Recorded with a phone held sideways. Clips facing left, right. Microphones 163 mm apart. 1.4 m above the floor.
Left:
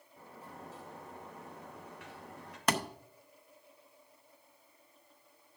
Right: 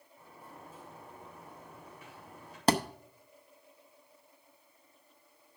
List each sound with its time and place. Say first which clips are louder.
0.2 s a sliding door: left 2 dB; 75° left (ahead or behind), 2.5 m
2.7 s a thud: right 5 dB; 30° right (ahead or behind), 0.7 m